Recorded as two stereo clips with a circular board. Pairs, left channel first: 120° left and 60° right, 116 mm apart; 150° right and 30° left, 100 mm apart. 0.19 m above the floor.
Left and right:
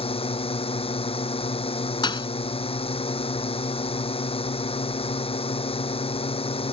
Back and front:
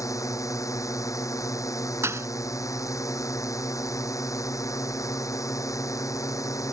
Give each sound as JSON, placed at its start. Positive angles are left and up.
{"t": 0.0, "sound": "a drone", "azimuth_deg": 155}
{"t": 2.0, "sound": "a thud", "azimuth_deg": 85}